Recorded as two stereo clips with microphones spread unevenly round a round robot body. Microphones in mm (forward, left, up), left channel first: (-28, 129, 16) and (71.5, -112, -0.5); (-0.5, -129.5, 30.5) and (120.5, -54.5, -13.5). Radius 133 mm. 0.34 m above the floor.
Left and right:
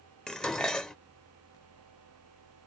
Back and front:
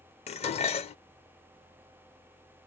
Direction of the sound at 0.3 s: 155° right.